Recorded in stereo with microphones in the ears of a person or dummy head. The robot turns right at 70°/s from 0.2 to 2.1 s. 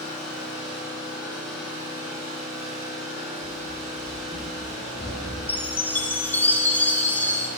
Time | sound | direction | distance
0.0 | an engine running | 85° left | 2.5 m
3.4 | running footsteps | 35° right (ahead or behind) | 1.4 m
5.5 | a chime | 10° left (ahead or behind) | 0.5 m